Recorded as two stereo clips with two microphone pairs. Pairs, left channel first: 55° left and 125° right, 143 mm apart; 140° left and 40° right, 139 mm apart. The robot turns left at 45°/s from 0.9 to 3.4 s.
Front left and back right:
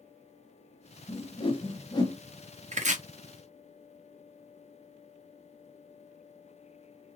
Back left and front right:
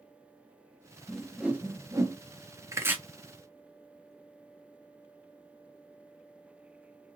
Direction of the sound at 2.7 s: 105° right.